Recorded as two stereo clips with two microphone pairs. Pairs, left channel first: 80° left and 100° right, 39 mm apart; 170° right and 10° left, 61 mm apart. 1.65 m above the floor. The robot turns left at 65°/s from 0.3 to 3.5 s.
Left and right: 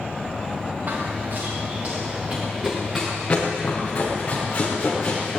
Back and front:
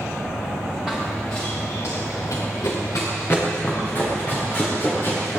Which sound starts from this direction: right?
Running footsteps, at 0.9 s.